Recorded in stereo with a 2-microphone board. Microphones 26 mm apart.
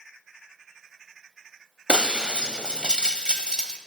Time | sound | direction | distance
1.9 | breaking glass | 35° right (ahead or behind) | 0.8 m